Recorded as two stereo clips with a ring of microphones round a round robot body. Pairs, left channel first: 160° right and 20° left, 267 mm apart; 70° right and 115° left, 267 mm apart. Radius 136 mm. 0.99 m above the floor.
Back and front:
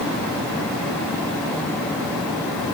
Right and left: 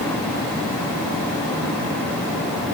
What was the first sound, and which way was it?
Only background noise.